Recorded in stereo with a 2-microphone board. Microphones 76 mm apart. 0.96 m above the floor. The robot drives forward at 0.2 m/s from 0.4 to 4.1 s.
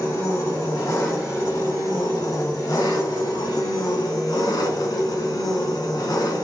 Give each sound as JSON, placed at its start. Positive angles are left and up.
{"t": 0.0, "sound": "an engine running", "side_deg": 40, "distance_m": 1.3}